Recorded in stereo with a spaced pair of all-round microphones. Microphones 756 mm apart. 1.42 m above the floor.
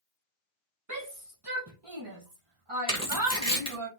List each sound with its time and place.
0.9 s a shout: 25° right (ahead or behind), 1.0 m; by 3.9 s 45° right (ahead or behind), 3 m
2.9 s tearing paper: 5° left (ahead or behind), 2.5 m